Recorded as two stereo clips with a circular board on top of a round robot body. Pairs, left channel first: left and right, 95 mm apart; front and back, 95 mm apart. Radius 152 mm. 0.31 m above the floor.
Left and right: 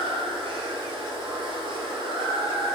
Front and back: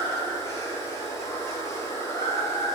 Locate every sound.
0.0 s running water: 60° right, 2 m